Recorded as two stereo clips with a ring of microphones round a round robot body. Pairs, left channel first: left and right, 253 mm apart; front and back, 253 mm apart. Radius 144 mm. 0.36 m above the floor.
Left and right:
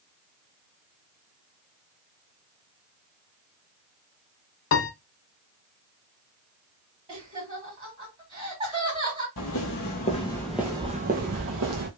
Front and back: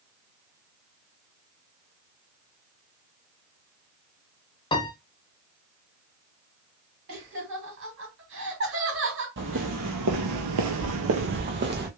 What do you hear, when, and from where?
4.7 s a piano: 70° left, 0.7 m
7.1 s laughter: 150° right, 2.0 m
9.4 s footsteps: 130° left, 0.8 m; by 11.9 s 130° right, 0.9 m